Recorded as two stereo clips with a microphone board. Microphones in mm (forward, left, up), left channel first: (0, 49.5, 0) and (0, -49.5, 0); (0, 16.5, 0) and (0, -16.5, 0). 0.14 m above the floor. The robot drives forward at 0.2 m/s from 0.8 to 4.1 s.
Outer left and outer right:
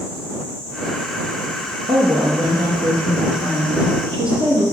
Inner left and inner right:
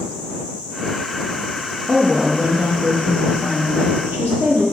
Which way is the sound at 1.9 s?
65° right (ahead or behind).